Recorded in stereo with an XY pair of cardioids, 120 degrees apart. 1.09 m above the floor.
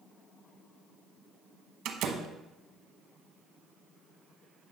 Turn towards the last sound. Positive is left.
turn(degrees=-70)